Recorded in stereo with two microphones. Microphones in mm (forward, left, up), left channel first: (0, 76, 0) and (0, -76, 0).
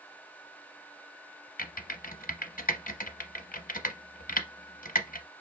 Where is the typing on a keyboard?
65° left (ahead or behind), 0.6 m.